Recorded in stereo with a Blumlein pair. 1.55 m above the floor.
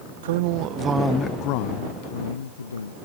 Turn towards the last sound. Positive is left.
turn(degrees=75)